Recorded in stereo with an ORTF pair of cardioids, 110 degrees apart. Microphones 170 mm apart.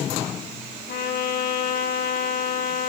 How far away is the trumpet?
About 5 m.